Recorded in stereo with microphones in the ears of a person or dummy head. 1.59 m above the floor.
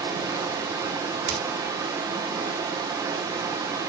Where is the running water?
20° right (ahead or behind), 1.0 m.